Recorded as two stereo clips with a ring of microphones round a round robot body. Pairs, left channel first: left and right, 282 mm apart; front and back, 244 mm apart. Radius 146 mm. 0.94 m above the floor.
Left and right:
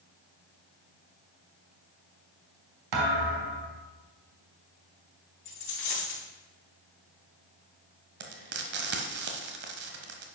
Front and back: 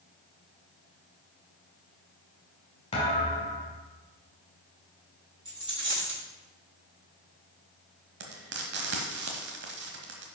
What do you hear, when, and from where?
2.9 s a thud: 70° right, 1.6 m
5.5 s a dropped coin: 110° left, 4.5 m
8.2 s frying: 135° right, 1.0 m